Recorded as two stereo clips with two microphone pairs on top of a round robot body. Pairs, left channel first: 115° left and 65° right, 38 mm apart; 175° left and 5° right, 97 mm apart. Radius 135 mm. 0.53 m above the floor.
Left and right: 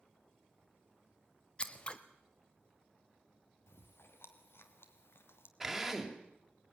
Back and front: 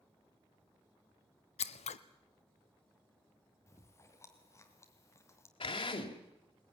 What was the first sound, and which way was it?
Scissors, 175° left.